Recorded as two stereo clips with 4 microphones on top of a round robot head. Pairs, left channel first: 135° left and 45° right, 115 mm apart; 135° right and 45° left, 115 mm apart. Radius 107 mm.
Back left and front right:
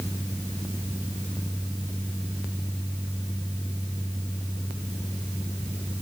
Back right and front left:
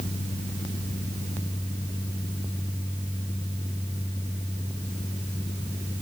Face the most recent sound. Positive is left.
No sound to turn to.